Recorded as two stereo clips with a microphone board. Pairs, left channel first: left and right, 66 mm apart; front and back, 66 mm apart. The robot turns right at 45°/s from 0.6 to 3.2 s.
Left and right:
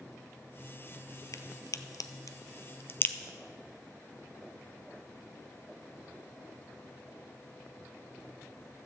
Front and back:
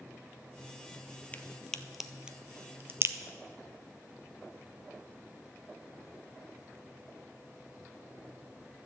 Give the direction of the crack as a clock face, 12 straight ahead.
10 o'clock.